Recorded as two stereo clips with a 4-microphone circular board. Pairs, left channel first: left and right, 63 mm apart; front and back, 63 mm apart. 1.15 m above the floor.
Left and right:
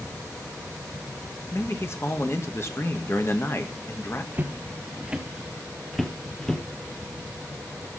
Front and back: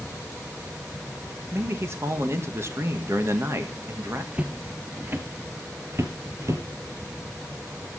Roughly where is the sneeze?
I don't hear a sneeze.